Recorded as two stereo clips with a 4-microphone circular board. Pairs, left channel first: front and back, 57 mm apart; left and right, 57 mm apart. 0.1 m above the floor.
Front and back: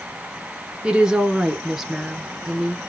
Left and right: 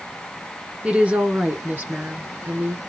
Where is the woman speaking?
130° right, 1.1 m; by 2.8 s 85° right, 1.7 m.